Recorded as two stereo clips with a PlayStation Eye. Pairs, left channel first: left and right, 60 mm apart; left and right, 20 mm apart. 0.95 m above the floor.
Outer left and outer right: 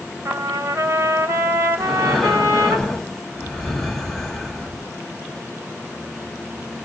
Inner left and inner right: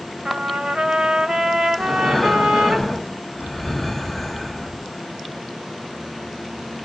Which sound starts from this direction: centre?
Breathing, at 1.8 s.